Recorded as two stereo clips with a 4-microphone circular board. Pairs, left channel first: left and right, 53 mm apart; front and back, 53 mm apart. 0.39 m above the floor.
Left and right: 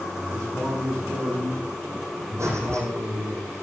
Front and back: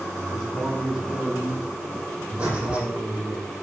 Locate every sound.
0.3 s a man speaking: 80° right, 5 m; by 3.4 s 105° right, 7 m
2.4 s breathing: 110° right, 7 m